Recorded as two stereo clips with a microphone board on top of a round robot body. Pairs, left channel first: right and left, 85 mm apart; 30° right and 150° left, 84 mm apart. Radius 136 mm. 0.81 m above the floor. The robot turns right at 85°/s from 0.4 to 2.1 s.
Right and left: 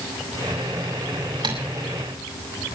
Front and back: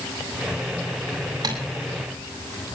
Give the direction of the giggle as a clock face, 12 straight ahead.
I don't hear a giggle.